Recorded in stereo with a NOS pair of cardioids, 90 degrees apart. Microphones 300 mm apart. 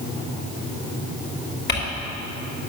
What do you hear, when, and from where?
1.7 s crumpling: 35° left, 3.5 m